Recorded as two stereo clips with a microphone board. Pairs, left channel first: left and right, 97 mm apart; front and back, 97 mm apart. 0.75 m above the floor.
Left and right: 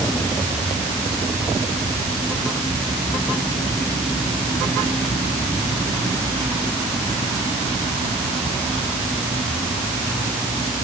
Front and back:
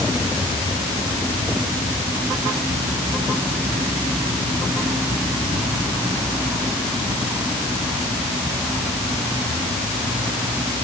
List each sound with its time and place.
Only background noise.